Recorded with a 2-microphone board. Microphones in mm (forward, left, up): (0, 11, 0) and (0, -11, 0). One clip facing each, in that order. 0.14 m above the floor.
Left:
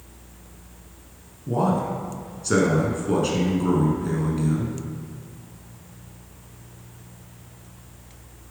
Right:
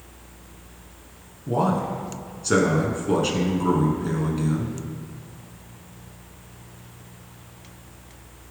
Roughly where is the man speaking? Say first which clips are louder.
Even; centre.